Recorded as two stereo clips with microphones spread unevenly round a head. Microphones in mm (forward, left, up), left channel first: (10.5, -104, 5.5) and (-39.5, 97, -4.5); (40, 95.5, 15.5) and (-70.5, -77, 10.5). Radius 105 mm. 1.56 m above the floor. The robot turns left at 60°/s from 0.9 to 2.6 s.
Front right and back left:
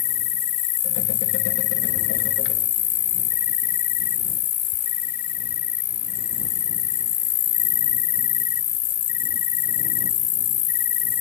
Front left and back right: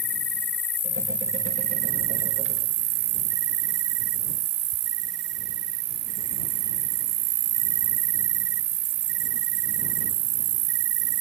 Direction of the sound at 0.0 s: 20° right.